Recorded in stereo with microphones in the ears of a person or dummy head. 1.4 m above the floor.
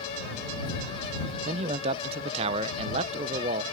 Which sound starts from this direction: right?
A man speaking, at 1.4 s.